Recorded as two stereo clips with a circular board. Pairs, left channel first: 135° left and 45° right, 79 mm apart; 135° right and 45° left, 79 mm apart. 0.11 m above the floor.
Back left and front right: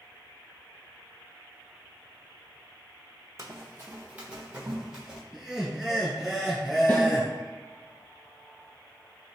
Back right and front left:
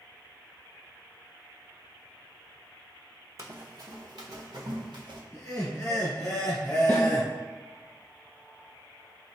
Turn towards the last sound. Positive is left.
turn(degrees=-170)